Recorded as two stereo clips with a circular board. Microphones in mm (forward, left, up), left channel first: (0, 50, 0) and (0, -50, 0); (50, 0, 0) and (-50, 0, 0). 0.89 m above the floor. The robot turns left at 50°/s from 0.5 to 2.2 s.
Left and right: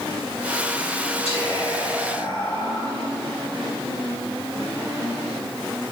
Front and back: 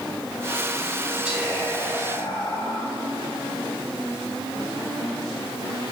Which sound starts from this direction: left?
Whispering, at 1.2 s.